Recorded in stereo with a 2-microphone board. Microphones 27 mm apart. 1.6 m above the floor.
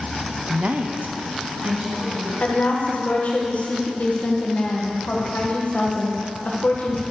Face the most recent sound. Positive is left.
turn(degrees=60)  # may be behind; listen again after turning